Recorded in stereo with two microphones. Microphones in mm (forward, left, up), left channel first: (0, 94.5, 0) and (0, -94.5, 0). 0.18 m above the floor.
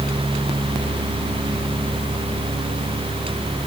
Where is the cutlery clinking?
No cutlery clinking in this recording.